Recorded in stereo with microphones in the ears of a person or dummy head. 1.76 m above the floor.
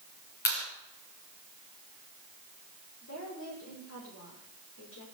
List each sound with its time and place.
0.5 s a clap: 50° left (ahead or behind), 7 m
3.0 s a woman speaking: 80° left, 5.5 m